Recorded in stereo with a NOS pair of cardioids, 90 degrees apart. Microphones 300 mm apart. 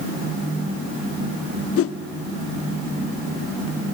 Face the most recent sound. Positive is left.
turn(degrees=50)